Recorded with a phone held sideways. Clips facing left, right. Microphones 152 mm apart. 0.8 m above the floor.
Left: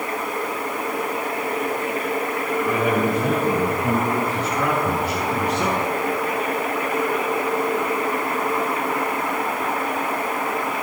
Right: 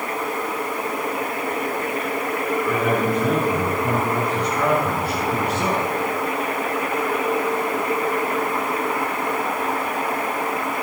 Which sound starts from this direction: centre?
A man speaking, at 2.6 s.